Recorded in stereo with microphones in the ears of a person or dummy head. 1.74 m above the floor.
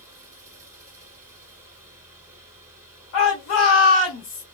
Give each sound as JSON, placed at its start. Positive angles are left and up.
{"t": 0.0, "sound": "a fan", "side_deg": -10, "distance_m": 0.8}
{"t": 3.1, "sound": "a shout", "side_deg": 70, "distance_m": 1.1}